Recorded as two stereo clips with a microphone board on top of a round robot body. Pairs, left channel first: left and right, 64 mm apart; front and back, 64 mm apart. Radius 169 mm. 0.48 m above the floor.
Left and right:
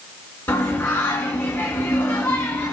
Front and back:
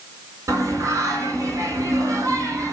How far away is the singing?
About 2 m.